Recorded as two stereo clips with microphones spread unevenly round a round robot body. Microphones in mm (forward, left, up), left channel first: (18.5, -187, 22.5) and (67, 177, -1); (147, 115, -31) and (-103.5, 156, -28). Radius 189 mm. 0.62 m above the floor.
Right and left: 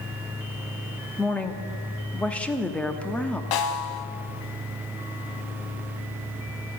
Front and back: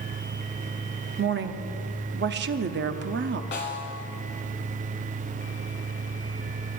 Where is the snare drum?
70° right, 1.3 m.